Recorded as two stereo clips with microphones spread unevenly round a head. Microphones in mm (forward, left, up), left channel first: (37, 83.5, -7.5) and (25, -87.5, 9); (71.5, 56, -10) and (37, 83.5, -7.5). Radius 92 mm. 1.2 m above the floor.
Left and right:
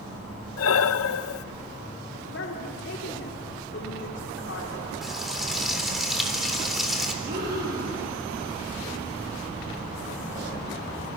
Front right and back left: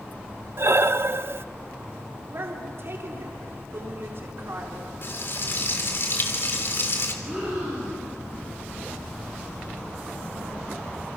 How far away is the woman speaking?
About 3.5 m.